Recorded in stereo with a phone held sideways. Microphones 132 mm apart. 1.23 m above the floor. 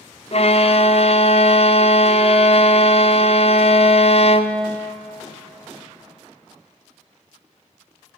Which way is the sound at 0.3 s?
50° left (ahead or behind).